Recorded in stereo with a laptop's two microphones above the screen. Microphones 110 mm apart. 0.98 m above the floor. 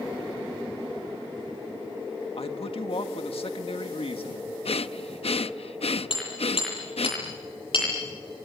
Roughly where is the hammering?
Left.